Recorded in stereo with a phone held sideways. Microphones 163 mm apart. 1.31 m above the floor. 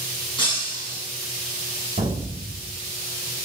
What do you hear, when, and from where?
0.4 s breaking glass: 30° left (ahead or behind), 5.5 m
2.0 s an explosion: 45° right (ahead or behind), 4.5 m